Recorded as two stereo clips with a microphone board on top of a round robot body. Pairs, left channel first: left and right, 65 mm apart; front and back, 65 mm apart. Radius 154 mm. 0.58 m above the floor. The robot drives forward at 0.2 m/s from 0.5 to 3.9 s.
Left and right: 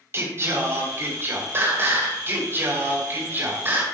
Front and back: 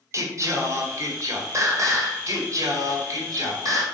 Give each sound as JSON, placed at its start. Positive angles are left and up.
{"t": 0.1, "sound": "singing", "azimuth_deg": -140, "distance_m": 1.8}